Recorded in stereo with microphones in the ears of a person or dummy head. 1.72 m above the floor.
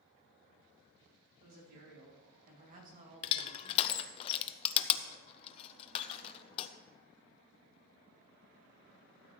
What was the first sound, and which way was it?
A woman speaking, 60° right (ahead or behind).